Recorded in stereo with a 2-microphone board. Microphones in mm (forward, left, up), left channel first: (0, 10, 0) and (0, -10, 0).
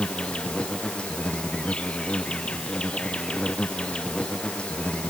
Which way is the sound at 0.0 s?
70° left (ahead or behind).